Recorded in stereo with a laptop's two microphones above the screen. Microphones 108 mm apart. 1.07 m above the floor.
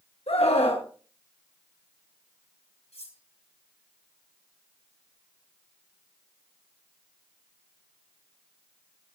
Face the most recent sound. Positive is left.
turn(degrees=85)